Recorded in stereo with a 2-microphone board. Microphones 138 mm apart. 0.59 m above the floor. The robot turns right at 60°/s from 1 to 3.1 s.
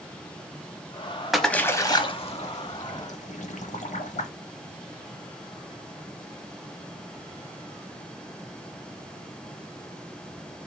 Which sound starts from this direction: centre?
A splash, at 1.3 s.